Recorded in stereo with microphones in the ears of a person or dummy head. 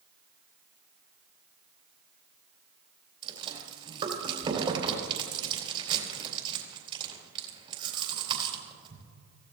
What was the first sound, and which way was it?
Chewing, 30° right (ahead or behind).